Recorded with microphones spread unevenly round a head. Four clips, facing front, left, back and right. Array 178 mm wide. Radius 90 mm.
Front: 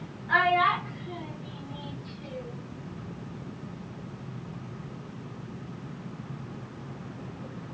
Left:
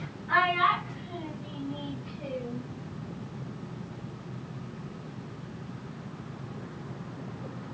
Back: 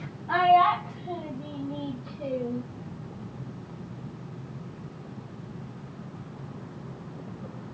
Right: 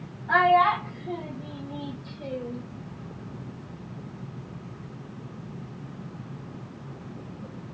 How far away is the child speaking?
About 3 m.